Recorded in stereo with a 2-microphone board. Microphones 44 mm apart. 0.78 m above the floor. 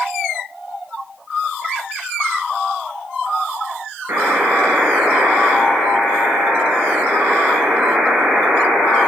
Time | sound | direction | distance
4.1 | a buzzer | 65° right (ahead or behind) | 3.5 m